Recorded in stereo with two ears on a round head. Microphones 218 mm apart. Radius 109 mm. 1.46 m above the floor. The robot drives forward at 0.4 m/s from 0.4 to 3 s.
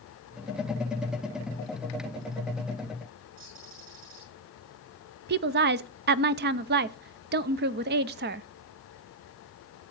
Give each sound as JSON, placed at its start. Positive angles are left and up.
{"t": 3.4, "sound": "a bird", "side_deg": -55, "distance_m": 6.5}
{"t": 5.3, "sound": "a woman speaking", "side_deg": -45, "distance_m": 0.5}